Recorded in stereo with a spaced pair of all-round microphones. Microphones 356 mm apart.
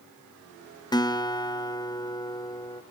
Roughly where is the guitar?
Centre.